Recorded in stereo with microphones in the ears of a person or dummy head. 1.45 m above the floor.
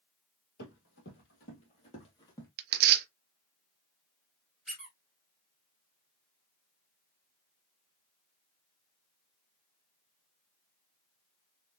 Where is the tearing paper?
45° right (ahead or behind), 0.5 m.